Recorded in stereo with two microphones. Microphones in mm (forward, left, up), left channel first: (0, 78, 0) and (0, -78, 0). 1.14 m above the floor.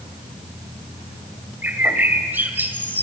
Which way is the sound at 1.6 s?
10° right (ahead or behind).